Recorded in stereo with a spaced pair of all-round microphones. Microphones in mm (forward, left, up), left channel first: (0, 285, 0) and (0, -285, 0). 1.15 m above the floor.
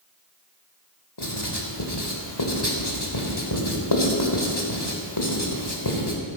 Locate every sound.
1.2 s writing: 45° left (ahead or behind), 2.5 m